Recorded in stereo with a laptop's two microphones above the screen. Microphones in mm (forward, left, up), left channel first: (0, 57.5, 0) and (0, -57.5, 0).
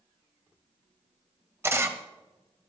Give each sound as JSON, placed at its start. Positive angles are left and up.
{"t": 1.6, "sound": "a camera shutter", "side_deg": -25, "distance_m": 1.2}